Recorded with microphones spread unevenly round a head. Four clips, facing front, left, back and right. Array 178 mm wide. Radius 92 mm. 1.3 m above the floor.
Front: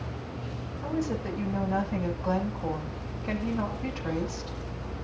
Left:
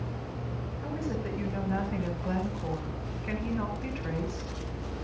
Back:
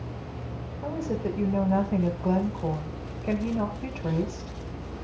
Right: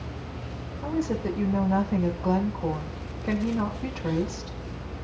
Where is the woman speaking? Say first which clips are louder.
Right 7 dB, back 1 dB; 145° right, 6 m.